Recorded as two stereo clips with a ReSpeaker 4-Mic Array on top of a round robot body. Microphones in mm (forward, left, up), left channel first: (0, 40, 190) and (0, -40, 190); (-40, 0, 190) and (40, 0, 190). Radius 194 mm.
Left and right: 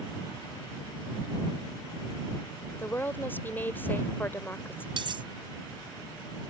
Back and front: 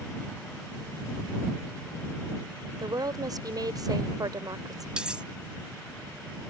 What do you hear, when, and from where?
2.8 s a woman speaking: 25° left
5.0 s cutlery clinking: 80° right